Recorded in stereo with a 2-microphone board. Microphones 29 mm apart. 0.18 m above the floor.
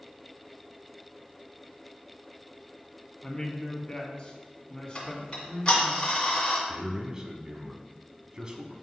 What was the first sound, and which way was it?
A man speaking, 35° left (ahead or behind).